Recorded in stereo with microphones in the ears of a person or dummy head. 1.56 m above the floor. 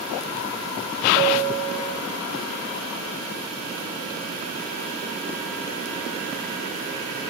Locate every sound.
1.2 s a bell: 35° right (ahead or behind), 2.5 m